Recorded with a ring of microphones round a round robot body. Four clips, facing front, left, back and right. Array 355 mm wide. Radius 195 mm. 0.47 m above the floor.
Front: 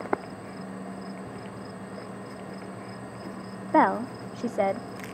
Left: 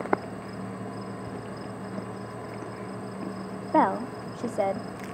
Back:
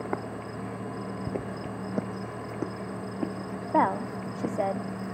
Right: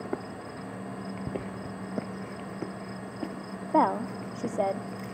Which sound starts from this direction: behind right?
Footsteps, at 1.3 s.